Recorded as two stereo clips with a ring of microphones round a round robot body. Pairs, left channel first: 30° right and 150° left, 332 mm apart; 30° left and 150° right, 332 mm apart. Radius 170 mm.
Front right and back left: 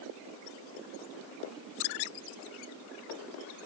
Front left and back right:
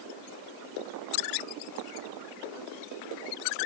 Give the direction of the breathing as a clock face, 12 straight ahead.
I don't hear breathing.